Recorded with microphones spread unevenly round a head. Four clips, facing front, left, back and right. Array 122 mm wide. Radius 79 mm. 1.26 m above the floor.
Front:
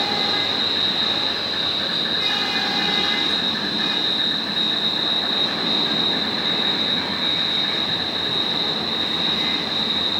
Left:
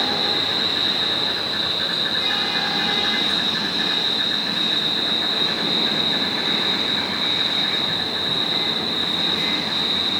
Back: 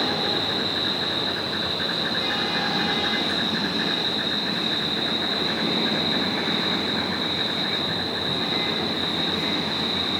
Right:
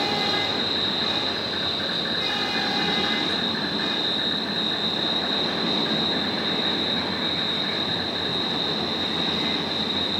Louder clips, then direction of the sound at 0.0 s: Even, front 1 dB; 140° right.